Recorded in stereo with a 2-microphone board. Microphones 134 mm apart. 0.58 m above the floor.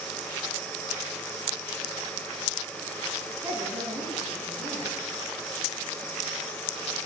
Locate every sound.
3.4 s a woman speaking: 5° right (ahead or behind), 2.5 m